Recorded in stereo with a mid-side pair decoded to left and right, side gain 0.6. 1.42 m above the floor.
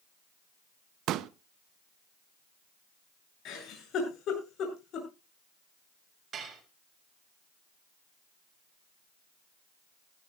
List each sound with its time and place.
1.1 s a pop: 60° right, 0.8 m
3.5 s a giggle: 55° left, 8.5 m
6.3 s dishes clattering: 35° right, 5.5 m